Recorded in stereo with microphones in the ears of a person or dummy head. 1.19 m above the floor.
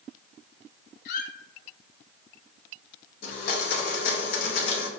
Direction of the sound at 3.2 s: 50° left (ahead or behind).